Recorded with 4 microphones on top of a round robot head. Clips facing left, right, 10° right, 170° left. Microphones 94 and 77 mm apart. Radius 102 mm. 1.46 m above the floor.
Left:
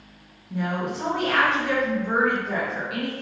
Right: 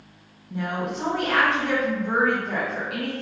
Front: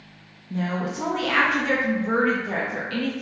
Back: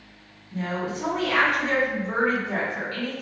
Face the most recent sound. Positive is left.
turn(degrees=0)